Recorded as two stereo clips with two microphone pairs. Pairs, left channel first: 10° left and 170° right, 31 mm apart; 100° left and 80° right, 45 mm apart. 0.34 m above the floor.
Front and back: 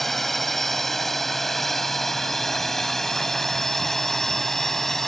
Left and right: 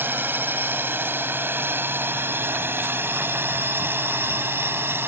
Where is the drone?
70° right.